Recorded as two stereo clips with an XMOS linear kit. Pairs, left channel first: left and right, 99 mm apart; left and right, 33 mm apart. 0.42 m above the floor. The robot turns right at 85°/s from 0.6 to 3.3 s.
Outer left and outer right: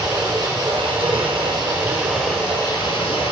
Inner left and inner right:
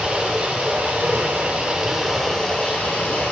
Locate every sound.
0.0 s running water: 140° right, 2.5 m; by 3.3 s 90° left, 2.5 m